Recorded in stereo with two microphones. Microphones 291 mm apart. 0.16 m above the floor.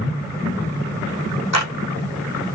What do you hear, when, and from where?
1.5 s a clap: 60° left (ahead or behind), 6 m